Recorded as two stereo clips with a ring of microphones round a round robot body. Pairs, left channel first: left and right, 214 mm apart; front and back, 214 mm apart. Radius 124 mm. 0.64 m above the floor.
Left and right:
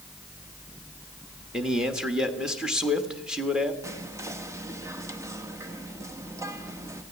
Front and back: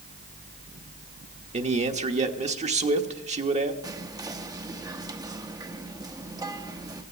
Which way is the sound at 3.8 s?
140° right.